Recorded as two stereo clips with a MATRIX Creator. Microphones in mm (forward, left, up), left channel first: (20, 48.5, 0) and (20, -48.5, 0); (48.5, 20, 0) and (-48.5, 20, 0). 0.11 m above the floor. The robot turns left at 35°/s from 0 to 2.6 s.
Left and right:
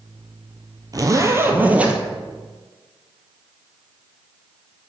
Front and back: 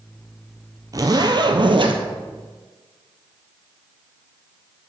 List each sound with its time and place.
0.9 s a zipper: 135° right, 1.0 m; by 2.0 s 170° right, 1.0 m